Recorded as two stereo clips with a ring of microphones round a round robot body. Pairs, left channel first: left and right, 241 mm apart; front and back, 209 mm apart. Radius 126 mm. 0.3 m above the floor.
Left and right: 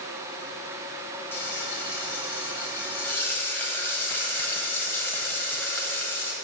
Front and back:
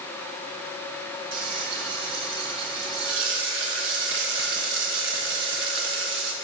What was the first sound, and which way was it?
Frying, 170° left.